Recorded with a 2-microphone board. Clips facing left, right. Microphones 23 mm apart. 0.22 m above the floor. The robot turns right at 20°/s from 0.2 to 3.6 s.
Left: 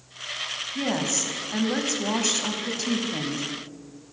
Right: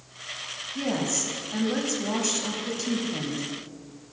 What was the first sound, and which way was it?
A woman speaking, 20° left (ahead or behind).